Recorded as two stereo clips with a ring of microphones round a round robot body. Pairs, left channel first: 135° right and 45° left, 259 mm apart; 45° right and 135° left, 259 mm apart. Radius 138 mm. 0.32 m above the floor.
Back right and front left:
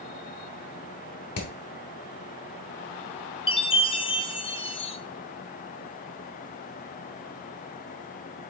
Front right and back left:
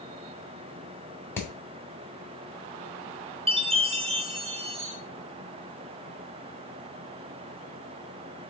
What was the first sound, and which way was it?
Hammering, 125° right.